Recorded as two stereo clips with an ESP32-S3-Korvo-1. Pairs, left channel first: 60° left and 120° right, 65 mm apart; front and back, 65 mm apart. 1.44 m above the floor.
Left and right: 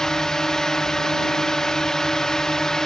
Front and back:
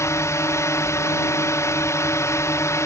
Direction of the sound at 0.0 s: 20° right.